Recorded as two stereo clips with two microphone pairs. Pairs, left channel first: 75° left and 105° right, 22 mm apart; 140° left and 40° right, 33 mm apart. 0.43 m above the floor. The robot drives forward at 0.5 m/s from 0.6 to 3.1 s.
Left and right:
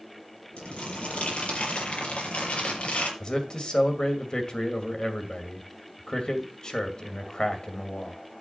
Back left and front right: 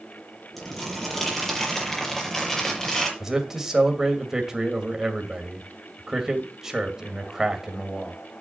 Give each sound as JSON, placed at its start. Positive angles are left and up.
{"t": 0.6, "sound": "crumpling", "azimuth_deg": 55, "distance_m": 6.0}
{"t": 3.2, "sound": "a man speaking", "azimuth_deg": 35, "distance_m": 2.0}